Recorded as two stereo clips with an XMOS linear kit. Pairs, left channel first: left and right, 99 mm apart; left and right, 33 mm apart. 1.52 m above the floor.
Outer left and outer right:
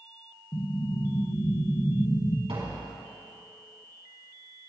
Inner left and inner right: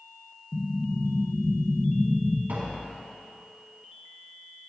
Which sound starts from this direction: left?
An explosion, at 0.5 s.